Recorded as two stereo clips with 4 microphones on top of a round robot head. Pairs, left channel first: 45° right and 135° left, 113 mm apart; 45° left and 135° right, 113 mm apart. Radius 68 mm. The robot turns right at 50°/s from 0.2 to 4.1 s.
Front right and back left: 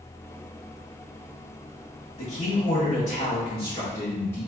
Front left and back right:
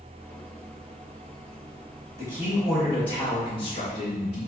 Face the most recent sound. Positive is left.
turn(degrees=20)